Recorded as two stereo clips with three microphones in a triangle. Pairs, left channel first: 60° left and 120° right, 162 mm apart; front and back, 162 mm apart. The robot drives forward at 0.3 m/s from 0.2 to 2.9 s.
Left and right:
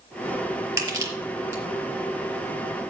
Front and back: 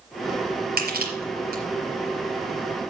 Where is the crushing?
170° left, 5 m.